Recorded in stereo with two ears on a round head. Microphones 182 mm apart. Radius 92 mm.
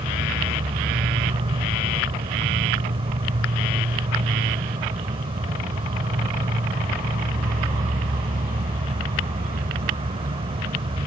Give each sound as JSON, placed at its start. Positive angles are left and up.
{"t": 0.0, "sound": "an insect", "side_deg": -25}